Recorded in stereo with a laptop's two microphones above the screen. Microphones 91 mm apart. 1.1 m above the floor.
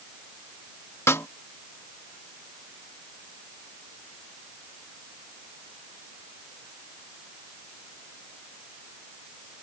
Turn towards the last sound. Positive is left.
turn(degrees=30)  # may be behind; listen again after turning